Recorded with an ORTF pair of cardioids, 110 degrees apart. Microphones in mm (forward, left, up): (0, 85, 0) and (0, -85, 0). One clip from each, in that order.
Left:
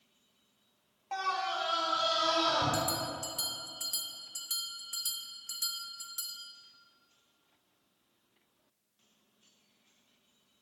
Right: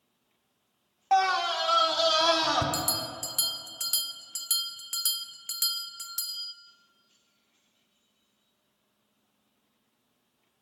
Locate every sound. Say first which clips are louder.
1.1 s a scream: right 9 dB; 60° right, 0.6 m; by 2.6 s 80° right, 2.5 m
2.7 s a bell: right 2 dB; 50° right, 0.7 m